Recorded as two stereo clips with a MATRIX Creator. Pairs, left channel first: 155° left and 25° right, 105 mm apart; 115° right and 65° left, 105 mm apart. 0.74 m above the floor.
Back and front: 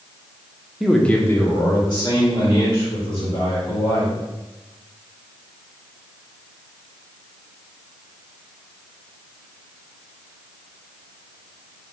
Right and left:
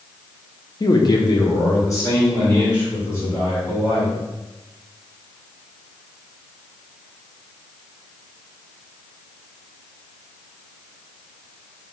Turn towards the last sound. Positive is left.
turn(degrees=175)